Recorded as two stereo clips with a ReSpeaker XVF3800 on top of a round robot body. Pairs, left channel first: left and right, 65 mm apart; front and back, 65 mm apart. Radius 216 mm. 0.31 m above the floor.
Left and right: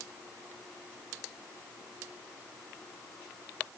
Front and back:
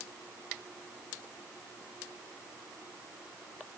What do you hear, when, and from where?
Only background noise.